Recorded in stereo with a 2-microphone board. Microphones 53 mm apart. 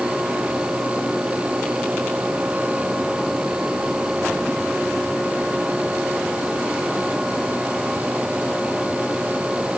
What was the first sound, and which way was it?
Only background noise.